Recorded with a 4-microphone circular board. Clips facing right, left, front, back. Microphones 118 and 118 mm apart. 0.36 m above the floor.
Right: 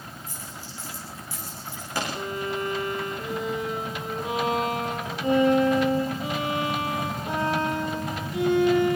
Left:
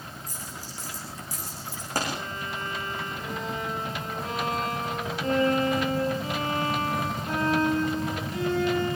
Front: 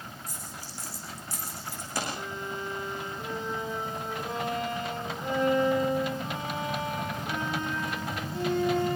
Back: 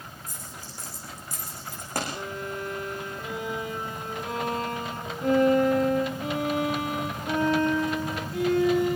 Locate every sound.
0.3 s a dropped coin: 140° left, 10 m
2.1 s a violin: 170° right, 7 m